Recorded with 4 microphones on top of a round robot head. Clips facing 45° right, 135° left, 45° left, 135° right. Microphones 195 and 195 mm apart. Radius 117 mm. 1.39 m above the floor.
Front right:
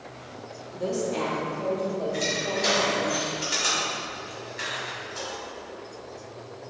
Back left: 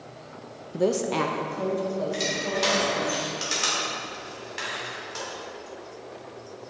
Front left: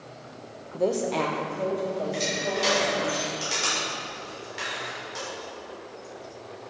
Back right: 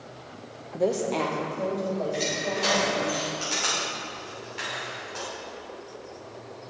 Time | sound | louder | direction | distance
0.7 | a woman speaking | back left 4 dB, even | 145° left | 0.6 m
2.1 | crushing | even, even | 130° left | 3 m